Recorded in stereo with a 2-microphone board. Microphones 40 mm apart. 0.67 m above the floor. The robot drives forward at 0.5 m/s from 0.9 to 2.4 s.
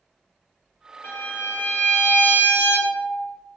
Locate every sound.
1.0 s a violin: 55° left (ahead or behind), 1.0 m; by 3.4 s 80° left, 0.8 m